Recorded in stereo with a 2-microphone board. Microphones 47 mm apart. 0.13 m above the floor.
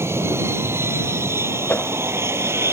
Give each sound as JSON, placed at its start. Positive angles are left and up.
{"t": 0.0, "sound": "an aircraft", "side_deg": -65}
{"t": 1.7, "sound": "a whoosh", "side_deg": 40}